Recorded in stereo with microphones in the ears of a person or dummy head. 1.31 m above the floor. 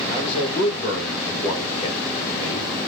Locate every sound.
0.1 s a man speaking: 35° left (ahead or behind), 1.4 m